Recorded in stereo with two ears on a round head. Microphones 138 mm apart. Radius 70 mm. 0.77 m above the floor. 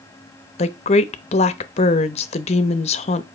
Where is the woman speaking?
45° left (ahead or behind), 0.7 m.